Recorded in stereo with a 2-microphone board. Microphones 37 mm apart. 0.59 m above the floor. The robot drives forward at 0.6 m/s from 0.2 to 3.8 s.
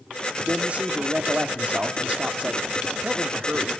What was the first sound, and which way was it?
A man speaking, 35° right (ahead or behind).